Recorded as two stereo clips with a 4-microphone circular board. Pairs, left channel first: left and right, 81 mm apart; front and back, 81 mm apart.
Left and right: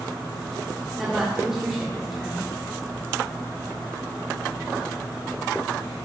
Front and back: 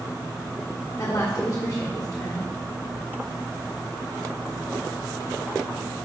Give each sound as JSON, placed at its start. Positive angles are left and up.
{"t": 1.0, "sound": "a woman speaking", "azimuth_deg": -5, "distance_m": 1.5}